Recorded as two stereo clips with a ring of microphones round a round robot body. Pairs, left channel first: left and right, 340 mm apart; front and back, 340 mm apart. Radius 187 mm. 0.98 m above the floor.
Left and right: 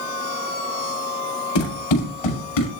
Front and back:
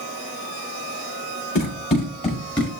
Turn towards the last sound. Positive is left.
turn(degrees=80)